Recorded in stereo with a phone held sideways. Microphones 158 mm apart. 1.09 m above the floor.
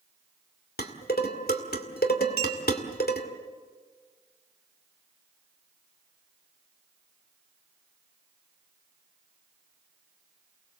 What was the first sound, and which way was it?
Dishes clattering, 80° left.